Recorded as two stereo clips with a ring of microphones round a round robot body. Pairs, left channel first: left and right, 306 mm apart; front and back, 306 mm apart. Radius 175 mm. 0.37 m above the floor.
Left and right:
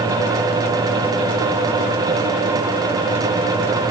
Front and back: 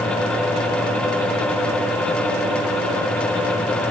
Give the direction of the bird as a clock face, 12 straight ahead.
I don't hear a bird.